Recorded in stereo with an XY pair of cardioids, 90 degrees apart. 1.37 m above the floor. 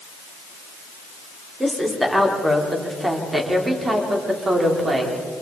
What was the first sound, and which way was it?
A woman speaking, 10° right.